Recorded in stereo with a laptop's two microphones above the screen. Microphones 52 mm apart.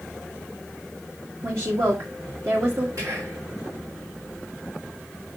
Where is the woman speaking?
60° right (ahead or behind), 1.7 m.